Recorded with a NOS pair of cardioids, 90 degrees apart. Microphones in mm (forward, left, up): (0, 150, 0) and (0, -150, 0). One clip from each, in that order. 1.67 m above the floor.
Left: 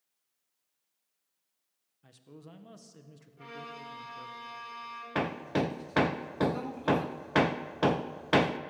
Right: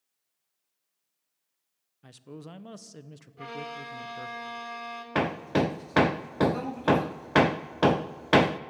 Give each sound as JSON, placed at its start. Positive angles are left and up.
{"t": 2.0, "sound": "a man speaking", "azimuth_deg": -45, "distance_m": 1.2}
{"t": 3.4, "sound": "a violin", "azimuth_deg": -50, "distance_m": 3.5}
{"t": 5.2, "sound": "hammering", "azimuth_deg": -20, "distance_m": 0.7}